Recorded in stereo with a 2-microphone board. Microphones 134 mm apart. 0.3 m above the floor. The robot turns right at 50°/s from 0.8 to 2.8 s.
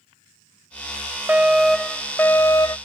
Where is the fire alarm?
20° right; by 2.8 s 55° left.